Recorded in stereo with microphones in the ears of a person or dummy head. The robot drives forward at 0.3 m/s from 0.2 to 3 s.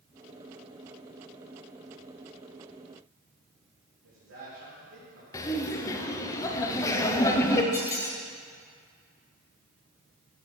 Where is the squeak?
15° left (ahead or behind), 0.7 m.